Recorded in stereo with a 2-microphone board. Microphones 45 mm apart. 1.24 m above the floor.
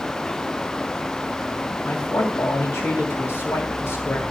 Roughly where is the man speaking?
Left.